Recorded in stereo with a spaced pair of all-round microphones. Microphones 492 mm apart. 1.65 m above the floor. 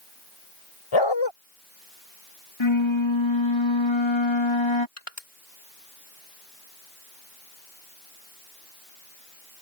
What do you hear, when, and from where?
0.9 s a dog barking: 65° left (ahead or behind)
2.6 s a flute: 65° left (ahead or behind)
5.0 s crushing: 80° left